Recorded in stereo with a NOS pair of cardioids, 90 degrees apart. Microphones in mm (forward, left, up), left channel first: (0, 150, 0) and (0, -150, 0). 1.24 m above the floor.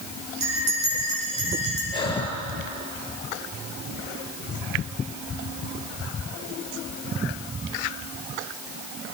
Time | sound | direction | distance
0.4 | a bell | 60° right | 9.5 m
1.9 | breathing | 15° left | 6.5 m